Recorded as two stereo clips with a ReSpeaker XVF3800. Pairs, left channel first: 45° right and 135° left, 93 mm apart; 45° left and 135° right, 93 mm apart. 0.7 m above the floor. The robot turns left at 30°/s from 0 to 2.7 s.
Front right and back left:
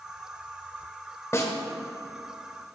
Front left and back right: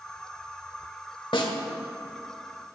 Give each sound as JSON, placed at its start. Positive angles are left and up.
{"t": 1.3, "sound": "a snare drum", "azimuth_deg": 15, "distance_m": 1.4}